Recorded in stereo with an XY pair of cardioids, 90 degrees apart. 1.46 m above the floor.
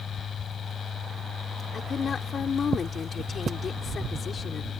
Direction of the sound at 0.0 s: 55° left.